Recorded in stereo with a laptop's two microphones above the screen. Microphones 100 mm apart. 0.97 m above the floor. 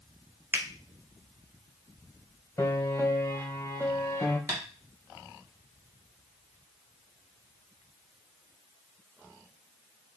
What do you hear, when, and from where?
0.5 s a finger snap: 20° right (ahead or behind), 0.5 m
2.6 s a piano: 30° left (ahead or behind), 0.7 m
4.5 s tapping: 20° right (ahead or behind), 1.3 m